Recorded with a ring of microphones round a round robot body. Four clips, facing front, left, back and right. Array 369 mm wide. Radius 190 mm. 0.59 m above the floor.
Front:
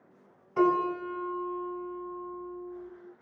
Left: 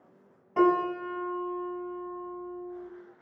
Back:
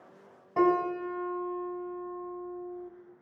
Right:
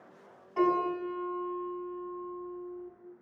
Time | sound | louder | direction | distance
0.6 | a piano | left 3 dB, even | 150° left | 6.5 m